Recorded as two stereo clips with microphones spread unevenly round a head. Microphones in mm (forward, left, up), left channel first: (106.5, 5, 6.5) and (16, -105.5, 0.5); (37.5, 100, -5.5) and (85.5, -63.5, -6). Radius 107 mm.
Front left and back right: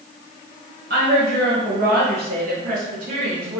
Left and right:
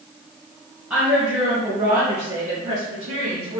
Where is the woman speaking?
160° right, 0.9 m; by 3.6 s 105° right, 2 m.